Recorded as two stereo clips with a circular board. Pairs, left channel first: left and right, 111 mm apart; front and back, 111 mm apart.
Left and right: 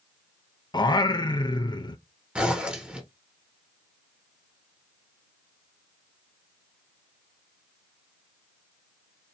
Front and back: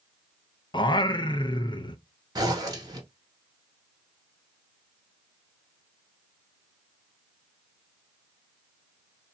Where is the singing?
45° left, 0.5 m.